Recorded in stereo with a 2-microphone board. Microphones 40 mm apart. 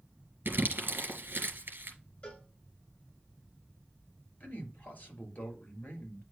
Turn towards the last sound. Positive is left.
turn(degrees=40)  # may be behind; listen again after turning